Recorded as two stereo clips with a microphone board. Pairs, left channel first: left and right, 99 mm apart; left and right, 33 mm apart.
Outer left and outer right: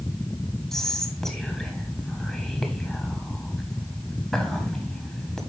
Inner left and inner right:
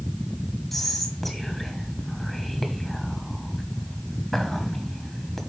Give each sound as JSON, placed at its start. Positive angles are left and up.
{"t": 0.7, "sound": "whispering", "side_deg": 5, "distance_m": 1.3}